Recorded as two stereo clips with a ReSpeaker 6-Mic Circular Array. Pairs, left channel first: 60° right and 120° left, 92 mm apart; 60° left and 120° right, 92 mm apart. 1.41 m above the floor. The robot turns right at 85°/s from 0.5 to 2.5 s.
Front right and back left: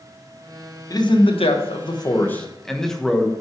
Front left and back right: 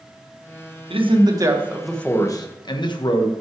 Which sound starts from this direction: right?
A man speaking, at 0.9 s.